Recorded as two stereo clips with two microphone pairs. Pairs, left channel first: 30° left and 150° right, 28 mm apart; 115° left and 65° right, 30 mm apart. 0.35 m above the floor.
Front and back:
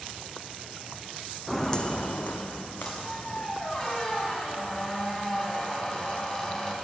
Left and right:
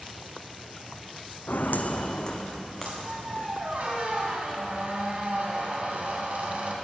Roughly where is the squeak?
Ahead right.